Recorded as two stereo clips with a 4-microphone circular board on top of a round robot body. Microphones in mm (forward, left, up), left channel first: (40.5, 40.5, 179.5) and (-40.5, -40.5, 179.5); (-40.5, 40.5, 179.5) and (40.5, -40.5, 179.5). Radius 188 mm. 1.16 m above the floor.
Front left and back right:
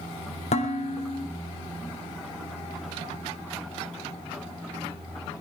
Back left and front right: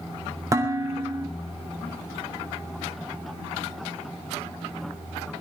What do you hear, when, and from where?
0.5 s dishes clattering: 20° left, 3 m